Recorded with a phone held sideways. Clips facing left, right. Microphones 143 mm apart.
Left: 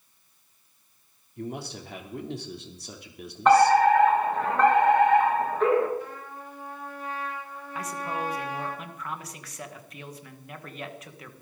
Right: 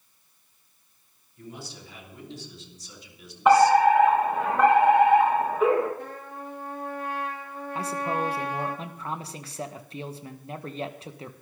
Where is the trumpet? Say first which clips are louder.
Right 1 dB; 60° right (ahead or behind), 5.5 m.